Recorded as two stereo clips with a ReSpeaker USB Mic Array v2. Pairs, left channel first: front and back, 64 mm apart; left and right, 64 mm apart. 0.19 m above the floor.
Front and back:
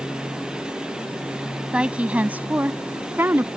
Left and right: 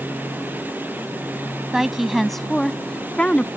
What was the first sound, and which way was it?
A woman speaking, 160° right.